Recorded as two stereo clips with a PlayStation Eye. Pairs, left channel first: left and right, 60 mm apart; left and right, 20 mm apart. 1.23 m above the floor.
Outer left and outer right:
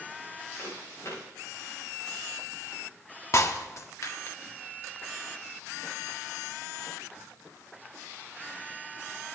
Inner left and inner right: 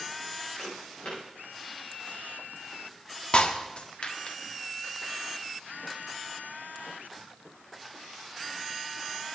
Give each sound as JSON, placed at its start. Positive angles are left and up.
{"t": 0.6, "sound": "footsteps", "side_deg": 50, "distance_m": 9.0}
{"t": 3.3, "sound": "breaking glass", "side_deg": 55, "distance_m": 1.4}